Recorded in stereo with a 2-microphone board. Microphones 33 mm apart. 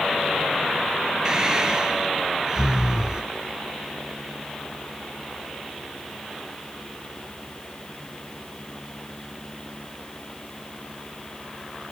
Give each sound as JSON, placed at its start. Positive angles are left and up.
{"t": 1.2, "sound": "breathing", "side_deg": -25, "distance_m": 2.0}